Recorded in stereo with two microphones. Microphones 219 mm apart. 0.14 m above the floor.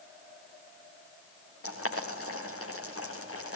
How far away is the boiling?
About 4.5 m.